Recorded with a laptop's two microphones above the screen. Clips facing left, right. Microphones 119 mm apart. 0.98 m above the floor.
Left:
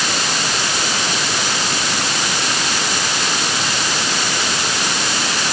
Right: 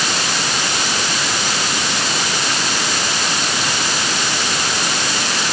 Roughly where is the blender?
I don't hear a blender.